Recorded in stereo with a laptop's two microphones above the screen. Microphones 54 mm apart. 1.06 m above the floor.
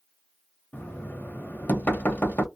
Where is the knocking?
35° left (ahead or behind), 1.0 m.